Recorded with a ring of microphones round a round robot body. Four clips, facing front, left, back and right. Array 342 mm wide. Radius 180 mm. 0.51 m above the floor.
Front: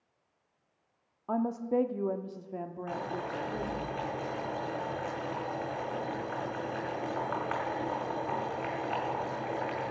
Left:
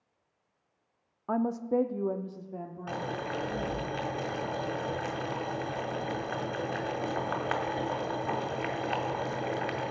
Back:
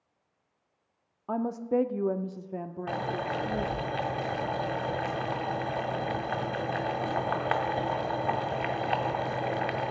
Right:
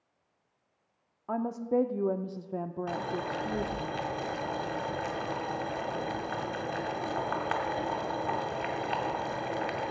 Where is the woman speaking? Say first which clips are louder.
Left 1 dB, back 1 dB; 110° left, 0.7 m; by 3.9 s 110° right, 1.3 m.